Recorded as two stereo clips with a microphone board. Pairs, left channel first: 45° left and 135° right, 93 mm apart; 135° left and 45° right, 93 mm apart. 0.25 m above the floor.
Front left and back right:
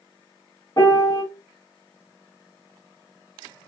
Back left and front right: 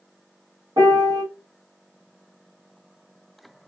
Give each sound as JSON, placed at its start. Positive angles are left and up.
{"t": 0.8, "sound": "a piano", "azimuth_deg": 0, "distance_m": 1.4}